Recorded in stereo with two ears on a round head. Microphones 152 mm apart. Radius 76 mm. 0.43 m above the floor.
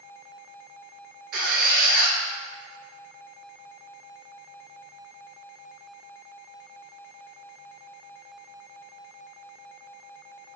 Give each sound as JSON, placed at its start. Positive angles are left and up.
{"t": 1.3, "sound": "a squeak", "side_deg": -65, "distance_m": 0.9}